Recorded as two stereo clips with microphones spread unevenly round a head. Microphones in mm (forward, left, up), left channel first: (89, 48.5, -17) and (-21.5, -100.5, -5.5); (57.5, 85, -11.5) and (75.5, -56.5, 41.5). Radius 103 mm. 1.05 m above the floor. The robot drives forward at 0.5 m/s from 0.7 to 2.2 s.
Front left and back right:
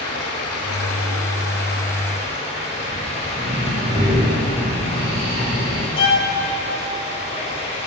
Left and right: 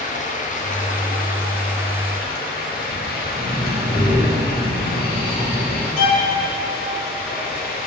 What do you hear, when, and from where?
0.0 s running water: 70° left, 0.9 m; by 7.9 s 115° left, 1.0 m
3.3 s breathing: 165° left, 1.3 m
6.0 s a violin: 105° left, 0.8 m